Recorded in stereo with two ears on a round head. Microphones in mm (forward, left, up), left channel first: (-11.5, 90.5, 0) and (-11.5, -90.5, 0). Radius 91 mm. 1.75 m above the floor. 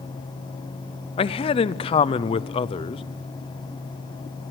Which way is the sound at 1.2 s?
25° left (ahead or behind).